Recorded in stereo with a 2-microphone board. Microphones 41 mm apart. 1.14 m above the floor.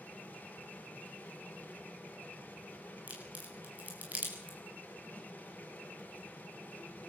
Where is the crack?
40° right (ahead or behind), 6 m.